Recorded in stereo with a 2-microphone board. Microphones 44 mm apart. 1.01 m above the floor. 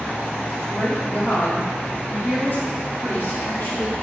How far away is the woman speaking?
About 2.5 m.